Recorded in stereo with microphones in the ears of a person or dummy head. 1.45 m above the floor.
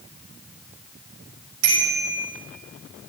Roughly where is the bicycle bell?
Right.